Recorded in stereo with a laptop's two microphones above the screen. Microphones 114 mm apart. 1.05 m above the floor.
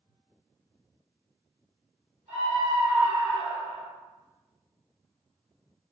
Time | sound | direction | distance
2.3 | a scream | 70° right (ahead or behind) | 1.2 m